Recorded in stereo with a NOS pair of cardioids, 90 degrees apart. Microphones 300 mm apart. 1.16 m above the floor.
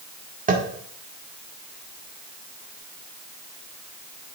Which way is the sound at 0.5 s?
30° right.